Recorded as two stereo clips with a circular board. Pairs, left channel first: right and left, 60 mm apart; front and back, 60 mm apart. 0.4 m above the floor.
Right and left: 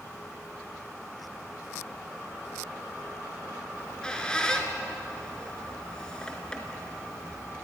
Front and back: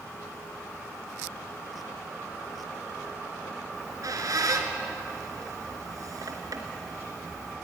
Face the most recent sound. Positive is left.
turn(degrees=-165)